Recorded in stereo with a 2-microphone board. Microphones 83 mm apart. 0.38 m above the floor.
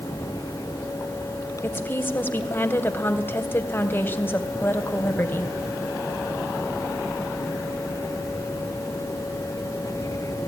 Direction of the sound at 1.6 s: 25° left (ahead or behind).